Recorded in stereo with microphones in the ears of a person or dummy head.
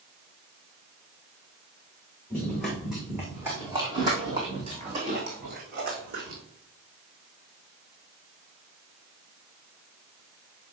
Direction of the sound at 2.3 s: 5° left (ahead or behind).